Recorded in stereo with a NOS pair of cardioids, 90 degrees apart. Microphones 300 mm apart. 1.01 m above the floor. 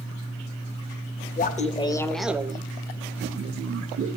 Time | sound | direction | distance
1.4 | laughter | 30° left | 0.9 m